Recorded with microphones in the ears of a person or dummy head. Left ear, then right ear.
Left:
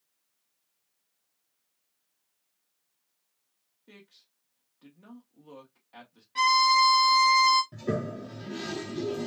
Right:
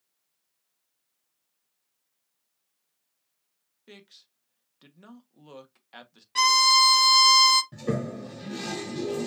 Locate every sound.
3.9 s a man speaking: 75° right (ahead or behind), 1.4 m
6.3 s a violin: 50° right (ahead or behind), 0.8 m
7.7 s a toilet flushing: 20° right (ahead or behind), 0.8 m